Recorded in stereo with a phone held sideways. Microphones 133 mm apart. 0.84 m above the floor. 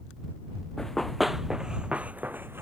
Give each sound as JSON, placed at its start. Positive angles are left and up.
{"t": 0.8, "sound": "running footsteps", "side_deg": 5}